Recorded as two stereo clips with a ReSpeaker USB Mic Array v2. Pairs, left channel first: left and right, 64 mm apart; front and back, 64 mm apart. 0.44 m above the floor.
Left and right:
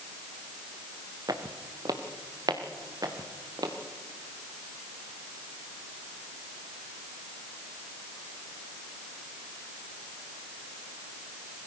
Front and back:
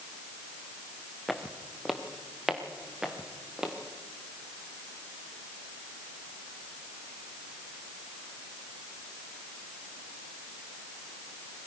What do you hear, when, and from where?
1.3 s footsteps: 90° right, 1.9 m; by 3.7 s 100° right, 3 m